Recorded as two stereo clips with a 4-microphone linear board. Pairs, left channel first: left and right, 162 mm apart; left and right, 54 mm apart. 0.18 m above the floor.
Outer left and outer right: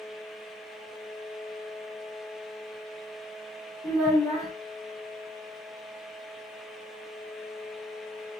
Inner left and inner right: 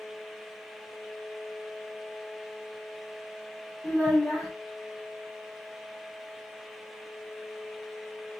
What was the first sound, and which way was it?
A child speaking, 20° left (ahead or behind).